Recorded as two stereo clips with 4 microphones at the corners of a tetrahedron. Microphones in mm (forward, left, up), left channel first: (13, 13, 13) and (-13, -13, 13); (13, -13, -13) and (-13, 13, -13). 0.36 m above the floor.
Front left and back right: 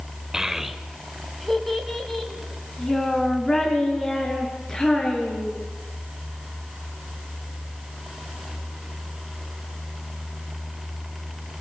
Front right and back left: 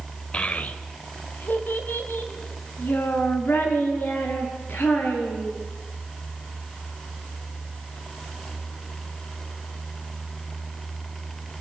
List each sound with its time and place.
0.3 s a child speaking: 70° right, 1.0 m; by 5.6 s 30° right, 5.5 m